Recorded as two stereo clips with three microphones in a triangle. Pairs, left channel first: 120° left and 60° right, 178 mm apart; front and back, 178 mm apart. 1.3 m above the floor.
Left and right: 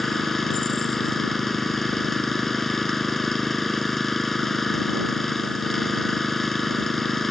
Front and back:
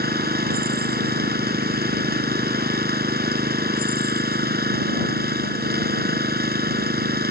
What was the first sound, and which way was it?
An engine running, 150° right.